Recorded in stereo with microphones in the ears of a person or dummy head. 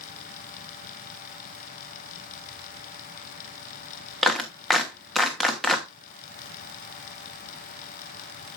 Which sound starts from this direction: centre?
A clap, at 4.2 s.